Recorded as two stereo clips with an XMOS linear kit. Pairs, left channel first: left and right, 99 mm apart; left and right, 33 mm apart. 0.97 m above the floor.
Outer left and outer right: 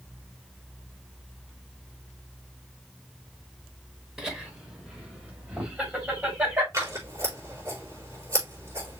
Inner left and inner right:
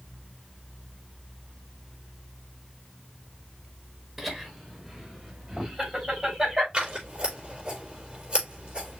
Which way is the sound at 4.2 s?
5° right (ahead or behind).